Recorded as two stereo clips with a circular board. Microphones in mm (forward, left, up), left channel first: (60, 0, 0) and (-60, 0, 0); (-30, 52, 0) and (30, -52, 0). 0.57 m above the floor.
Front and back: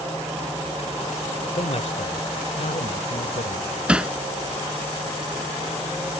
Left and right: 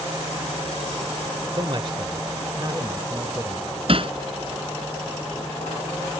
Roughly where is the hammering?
Right.